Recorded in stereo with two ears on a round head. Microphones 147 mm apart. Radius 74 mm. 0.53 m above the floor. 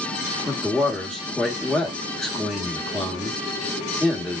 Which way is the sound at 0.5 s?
Centre (ahead or behind).